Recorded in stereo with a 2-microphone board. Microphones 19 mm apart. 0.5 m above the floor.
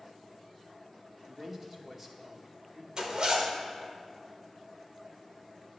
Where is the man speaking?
15° right (ahead or behind), 0.8 m.